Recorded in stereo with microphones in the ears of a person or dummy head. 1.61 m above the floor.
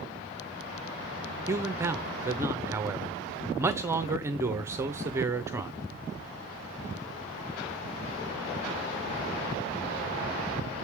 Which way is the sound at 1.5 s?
15° right (ahead or behind).